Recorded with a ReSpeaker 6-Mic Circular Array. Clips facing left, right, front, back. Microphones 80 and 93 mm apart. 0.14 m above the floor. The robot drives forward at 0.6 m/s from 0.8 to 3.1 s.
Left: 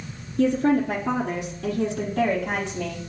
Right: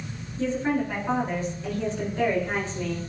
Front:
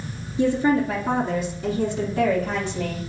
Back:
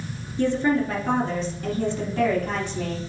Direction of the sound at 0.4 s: 70° left.